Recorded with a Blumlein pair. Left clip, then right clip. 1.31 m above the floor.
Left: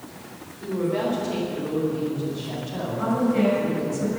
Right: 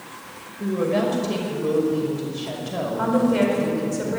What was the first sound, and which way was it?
A woman speaking, 65° right.